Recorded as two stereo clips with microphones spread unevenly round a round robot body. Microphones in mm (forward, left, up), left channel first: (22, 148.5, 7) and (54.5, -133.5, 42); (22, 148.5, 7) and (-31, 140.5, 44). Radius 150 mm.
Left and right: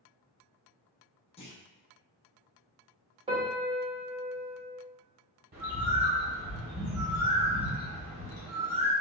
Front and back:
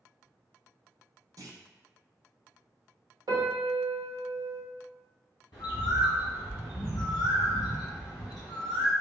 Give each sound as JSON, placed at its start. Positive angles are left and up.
{"t": 1.4, "sound": "a clunk", "azimuth_deg": 145, "distance_m": 1.0}
{"t": 3.3, "sound": "a piano", "azimuth_deg": -155, "distance_m": 1.0}
{"t": 5.5, "sound": "a bird", "azimuth_deg": -25, "distance_m": 1.7}